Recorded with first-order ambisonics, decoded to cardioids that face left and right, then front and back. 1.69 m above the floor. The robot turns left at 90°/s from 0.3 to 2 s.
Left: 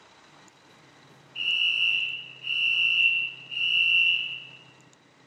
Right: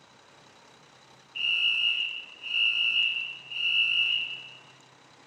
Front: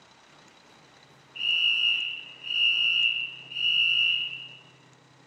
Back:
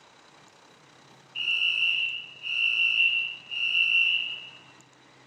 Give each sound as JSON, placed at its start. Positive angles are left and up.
{"t": 1.4, "sound": "a fire alarm", "azimuth_deg": -130, "distance_m": 0.6}